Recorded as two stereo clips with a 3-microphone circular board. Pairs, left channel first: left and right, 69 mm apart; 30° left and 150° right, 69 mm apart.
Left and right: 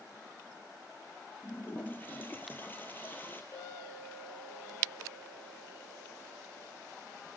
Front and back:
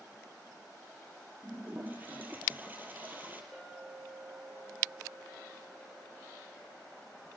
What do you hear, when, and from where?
1.4 s a toilet flushing: 150° left, 2.5 m
3.5 s a clink: 130° left, 5.5 m